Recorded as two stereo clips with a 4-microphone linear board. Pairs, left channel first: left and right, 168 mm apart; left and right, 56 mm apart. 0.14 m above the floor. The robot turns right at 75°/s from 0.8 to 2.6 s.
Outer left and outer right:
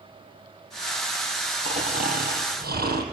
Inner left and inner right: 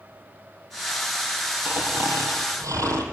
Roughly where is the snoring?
Behind right.